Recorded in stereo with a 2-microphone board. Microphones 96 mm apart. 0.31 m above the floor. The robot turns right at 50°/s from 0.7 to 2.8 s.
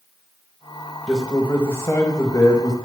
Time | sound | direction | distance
1.1 | a man speaking | 5° left | 1.2 m